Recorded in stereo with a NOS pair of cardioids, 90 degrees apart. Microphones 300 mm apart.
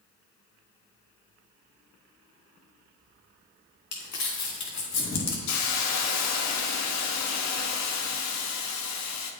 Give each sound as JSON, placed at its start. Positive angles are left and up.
{"t": 3.9, "sound": "crumpling", "azimuth_deg": 65, "distance_m": 3.0}
{"t": 5.5, "sound": "a hiss", "azimuth_deg": 65, "distance_m": 1.4}